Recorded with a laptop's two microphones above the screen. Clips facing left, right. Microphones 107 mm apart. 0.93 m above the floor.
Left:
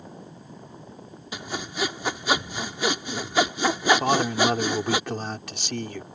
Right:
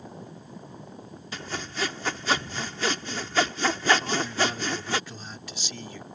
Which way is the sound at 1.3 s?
15° left (ahead or behind).